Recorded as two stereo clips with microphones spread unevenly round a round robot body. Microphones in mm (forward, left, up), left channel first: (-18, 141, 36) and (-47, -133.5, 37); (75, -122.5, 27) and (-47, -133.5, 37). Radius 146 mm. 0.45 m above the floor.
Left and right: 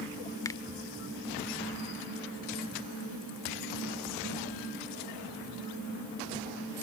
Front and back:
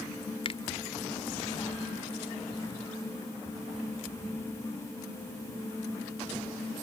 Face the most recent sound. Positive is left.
turn(degrees=10)